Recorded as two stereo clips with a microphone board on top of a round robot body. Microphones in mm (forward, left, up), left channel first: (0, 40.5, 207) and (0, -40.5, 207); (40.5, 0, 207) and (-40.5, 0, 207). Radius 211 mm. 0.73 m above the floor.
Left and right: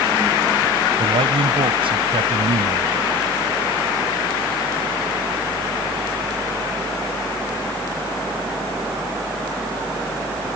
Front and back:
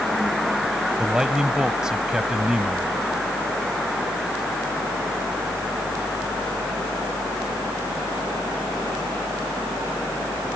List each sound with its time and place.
1.0 s a man speaking: 95° right